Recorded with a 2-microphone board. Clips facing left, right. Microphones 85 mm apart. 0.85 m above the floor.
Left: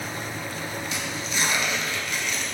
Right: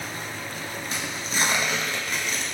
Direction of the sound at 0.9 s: 35° right (ahead or behind).